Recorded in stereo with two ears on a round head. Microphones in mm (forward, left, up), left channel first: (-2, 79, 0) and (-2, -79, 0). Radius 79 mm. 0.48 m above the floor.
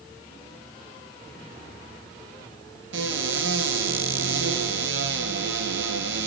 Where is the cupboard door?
80° right, 3 m.